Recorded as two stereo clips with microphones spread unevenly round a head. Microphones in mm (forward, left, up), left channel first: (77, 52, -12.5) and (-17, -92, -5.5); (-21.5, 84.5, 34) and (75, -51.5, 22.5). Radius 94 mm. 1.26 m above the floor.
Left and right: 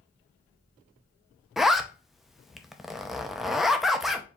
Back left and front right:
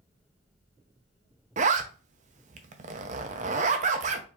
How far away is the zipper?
About 0.6 m.